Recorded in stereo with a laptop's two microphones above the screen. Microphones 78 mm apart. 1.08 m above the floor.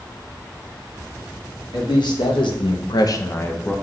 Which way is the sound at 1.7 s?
65° left (ahead or behind).